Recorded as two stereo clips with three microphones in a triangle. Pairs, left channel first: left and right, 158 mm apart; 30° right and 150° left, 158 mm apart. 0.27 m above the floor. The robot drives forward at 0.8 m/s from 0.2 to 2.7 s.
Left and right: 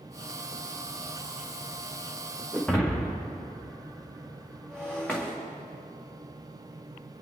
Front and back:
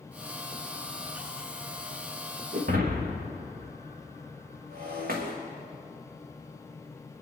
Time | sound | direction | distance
2.5 | breaking glass | 175° left | 2.5 m